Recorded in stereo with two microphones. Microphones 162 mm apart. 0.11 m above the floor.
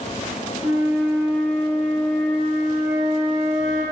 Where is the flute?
5° right (ahead or behind), 1.1 m.